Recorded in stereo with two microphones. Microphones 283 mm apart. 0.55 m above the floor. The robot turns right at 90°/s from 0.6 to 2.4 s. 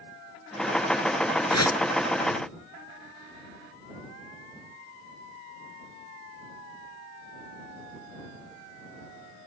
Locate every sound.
1.5 s a whoosh: 75° left (ahead or behind); by 1.8 s 50° left (ahead or behind)